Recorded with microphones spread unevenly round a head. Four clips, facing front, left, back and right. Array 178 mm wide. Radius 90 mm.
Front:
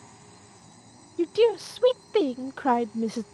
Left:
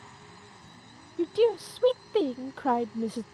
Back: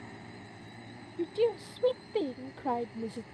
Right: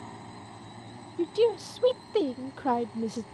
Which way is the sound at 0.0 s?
120° right.